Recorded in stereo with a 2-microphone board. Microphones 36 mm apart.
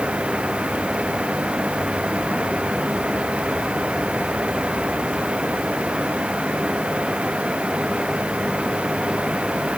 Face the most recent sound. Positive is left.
No sound to turn to.